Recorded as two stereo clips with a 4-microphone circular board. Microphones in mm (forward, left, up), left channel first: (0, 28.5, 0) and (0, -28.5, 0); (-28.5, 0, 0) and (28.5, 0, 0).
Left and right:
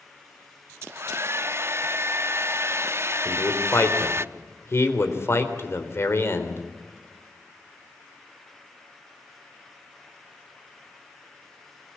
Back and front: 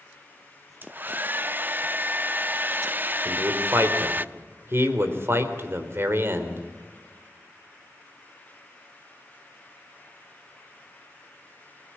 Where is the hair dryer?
55° right, 0.6 m.